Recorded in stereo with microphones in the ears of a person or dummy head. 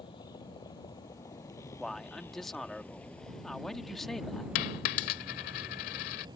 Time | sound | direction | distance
0.0 | a vehicle | 25° left (ahead or behind) | ?
1.8 | a man speaking | centre (ahead or behind) | ?
4.5 | a dropped coin | 55° left (ahead or behind) | ?